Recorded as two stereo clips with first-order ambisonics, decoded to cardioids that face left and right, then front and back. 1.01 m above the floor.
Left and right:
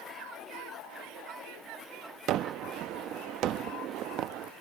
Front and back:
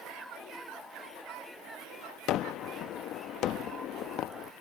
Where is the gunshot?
45° right.